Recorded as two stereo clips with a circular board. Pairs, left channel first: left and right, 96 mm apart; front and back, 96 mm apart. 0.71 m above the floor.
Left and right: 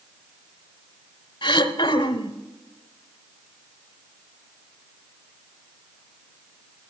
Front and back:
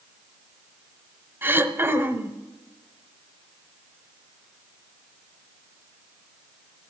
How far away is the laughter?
No laughter in this recording.